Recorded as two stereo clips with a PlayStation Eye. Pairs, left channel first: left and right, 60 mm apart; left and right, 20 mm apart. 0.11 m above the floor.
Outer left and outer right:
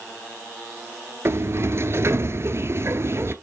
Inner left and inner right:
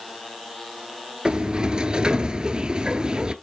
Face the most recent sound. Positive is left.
turn(degrees=-45)  # may be behind; listen again after turning